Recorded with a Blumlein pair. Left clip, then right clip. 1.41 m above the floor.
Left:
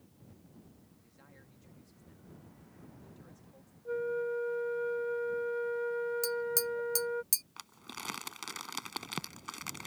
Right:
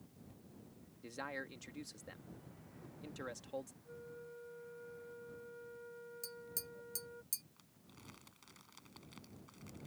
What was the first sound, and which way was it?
A man speaking, 50° right.